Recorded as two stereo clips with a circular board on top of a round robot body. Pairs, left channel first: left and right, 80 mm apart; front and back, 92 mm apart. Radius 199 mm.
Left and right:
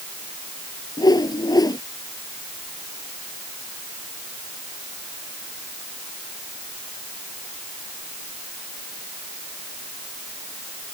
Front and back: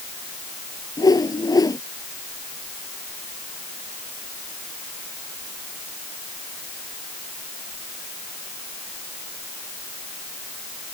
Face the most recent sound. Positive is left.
turn(degrees=50)